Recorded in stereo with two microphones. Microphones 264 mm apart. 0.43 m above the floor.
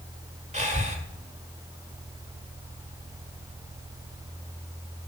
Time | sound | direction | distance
0.5 | breathing | 25° right (ahead or behind) | 1.4 m